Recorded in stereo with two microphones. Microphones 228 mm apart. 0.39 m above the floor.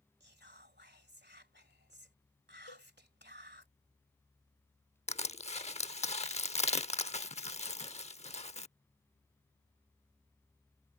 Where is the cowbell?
85° left.